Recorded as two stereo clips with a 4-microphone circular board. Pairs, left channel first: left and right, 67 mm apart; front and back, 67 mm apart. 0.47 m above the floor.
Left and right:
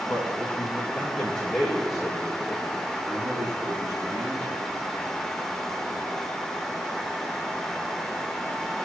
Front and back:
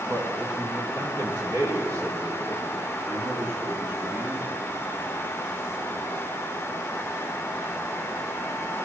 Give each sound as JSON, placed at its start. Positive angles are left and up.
{"t": 0.1, "sound": "a man speaking", "azimuth_deg": 145, "distance_m": 3.5}